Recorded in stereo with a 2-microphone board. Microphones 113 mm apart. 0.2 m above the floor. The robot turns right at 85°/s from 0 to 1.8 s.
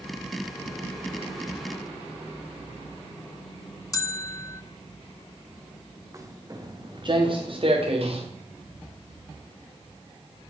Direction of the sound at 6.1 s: 25° right (ahead or behind).